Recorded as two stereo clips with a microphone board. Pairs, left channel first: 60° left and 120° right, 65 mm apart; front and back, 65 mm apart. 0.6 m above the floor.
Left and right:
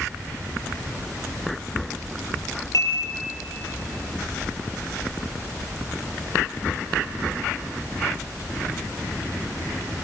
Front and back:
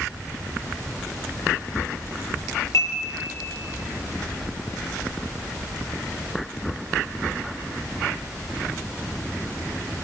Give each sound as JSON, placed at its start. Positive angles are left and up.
{"t": 2.7, "sound": "dishes clattering", "azimuth_deg": 35, "distance_m": 8.0}